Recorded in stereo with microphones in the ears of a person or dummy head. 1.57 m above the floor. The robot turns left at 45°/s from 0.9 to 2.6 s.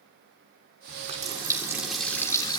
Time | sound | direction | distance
0.9 | a running tap | 135° right | 3 m